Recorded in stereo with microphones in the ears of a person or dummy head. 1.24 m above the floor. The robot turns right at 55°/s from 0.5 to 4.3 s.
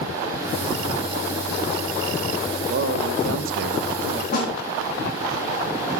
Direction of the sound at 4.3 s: 45° left (ahead or behind).